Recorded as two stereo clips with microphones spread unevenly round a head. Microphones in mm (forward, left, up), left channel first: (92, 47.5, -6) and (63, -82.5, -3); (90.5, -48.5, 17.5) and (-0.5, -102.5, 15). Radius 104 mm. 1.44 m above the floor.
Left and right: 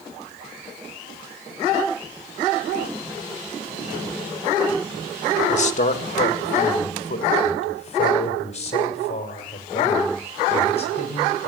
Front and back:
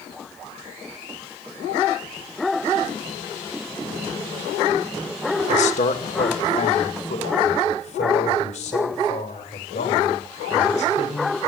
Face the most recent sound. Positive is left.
turn(degrees=40)